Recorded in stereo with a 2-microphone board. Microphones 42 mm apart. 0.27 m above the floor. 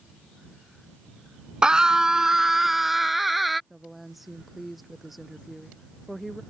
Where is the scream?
20° right (ahead or behind); by 3.6 s centre (ahead or behind).